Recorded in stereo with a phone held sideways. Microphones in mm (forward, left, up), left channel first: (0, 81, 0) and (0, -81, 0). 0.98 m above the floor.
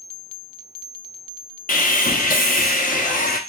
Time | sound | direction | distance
1.7 | sawing | 60° left (ahead or behind) | 0.5 m